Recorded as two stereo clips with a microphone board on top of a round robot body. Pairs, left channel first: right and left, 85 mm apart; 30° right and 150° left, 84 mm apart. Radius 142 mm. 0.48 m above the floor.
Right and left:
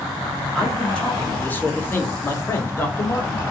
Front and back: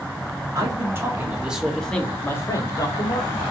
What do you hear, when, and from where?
0.6 s a man speaking: 170° right, 1.3 m; by 3.4 s 35° right, 1.5 m